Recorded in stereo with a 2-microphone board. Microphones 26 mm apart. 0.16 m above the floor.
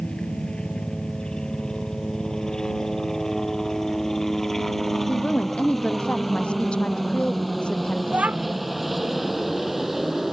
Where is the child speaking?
65° right (ahead or behind).